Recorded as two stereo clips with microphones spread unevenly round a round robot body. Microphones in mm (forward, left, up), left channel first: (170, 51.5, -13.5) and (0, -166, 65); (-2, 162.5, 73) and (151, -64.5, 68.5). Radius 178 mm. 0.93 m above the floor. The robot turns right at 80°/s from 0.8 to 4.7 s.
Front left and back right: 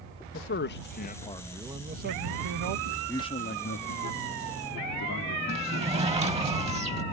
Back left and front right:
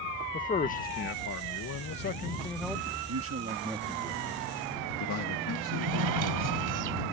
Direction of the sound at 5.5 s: 60° right.